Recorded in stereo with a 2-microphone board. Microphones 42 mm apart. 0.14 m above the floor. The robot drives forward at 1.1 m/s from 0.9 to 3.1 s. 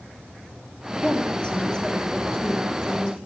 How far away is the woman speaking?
About 2 m.